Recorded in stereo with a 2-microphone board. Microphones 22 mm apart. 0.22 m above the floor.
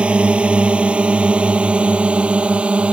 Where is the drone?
60° right (ahead or behind); by 2.9 s 65° right (ahead or behind).